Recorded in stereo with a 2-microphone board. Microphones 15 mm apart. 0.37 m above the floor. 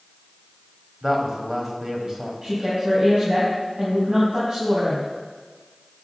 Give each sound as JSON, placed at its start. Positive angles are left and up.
{"t": 1.0, "sound": "a woman speaking", "side_deg": -25, "distance_m": 1.9}
{"t": 2.4, "sound": "a woman speaking", "side_deg": -65, "distance_m": 3.0}